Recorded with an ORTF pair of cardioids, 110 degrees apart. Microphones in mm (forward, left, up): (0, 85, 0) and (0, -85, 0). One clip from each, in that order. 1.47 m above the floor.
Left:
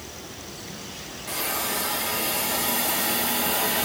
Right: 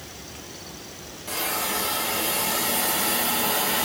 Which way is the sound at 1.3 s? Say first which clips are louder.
Right 1 dB; 10° right.